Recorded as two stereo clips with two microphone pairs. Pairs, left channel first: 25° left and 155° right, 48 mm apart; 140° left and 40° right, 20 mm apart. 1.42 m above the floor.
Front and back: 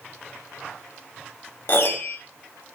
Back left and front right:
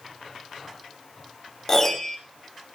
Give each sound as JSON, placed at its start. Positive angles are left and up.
{"t": 1.7, "sound": "a piano", "azimuth_deg": 65, "distance_m": 1.8}